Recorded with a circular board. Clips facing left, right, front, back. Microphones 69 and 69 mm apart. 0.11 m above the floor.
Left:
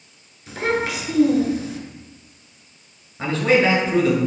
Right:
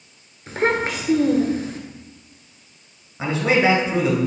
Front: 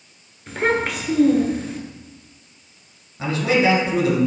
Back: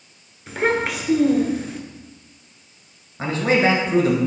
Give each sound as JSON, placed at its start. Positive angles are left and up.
{"t": 0.5, "sound": "a child speaking", "azimuth_deg": -90, "distance_m": 0.8}
{"t": 3.2, "sound": "a man speaking", "azimuth_deg": -165, "distance_m": 1.3}